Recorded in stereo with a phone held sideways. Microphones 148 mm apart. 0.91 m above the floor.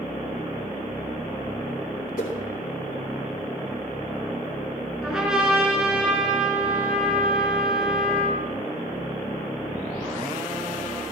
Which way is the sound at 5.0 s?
5° right (ahead or behind).